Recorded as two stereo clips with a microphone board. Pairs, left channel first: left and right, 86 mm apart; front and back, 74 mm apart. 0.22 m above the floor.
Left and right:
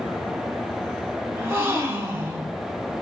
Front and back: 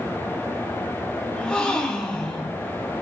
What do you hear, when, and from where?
1.3 s a gasp: 65° right, 1.1 m